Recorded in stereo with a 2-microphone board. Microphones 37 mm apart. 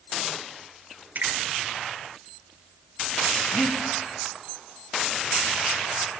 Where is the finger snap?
60° right (ahead or behind), 5 m.